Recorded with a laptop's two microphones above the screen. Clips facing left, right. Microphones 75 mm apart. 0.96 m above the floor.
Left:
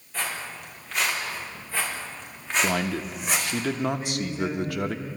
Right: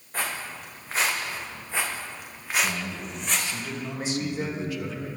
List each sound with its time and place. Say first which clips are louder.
0.1 s footsteps: right 1 dB; 45° right (ahead or behind), 4 m; by 3.6 s 15° left (ahead or behind), 3 m
2.6 s a man speaking: left 5 dB; 60° left (ahead or behind), 0.9 m
4.0 s a man speaking: even; 55° right (ahead or behind), 1.8 m